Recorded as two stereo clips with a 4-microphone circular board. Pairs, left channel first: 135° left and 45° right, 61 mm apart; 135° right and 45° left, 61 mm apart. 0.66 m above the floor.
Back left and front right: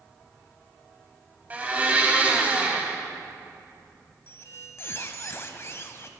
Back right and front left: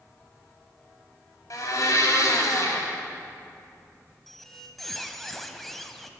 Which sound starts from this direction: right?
A blender, at 1.5 s.